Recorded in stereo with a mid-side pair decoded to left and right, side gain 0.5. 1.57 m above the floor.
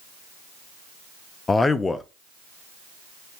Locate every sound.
1.5 s a man speaking: 25° left, 0.7 m